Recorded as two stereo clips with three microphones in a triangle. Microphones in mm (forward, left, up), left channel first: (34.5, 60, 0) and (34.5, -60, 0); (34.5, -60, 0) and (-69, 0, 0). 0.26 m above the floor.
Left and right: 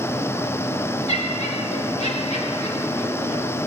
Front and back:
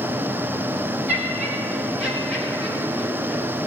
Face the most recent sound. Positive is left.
turn(degrees=60)